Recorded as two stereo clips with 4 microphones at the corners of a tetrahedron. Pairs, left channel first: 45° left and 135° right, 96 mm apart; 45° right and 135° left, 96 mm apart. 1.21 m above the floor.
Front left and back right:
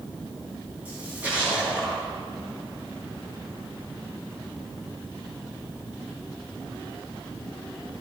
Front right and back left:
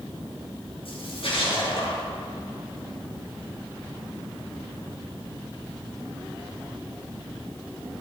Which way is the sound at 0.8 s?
60° right.